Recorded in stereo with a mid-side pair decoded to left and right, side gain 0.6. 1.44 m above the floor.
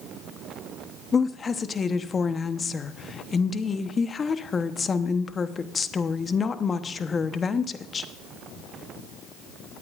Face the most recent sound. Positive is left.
turn(degrees=30)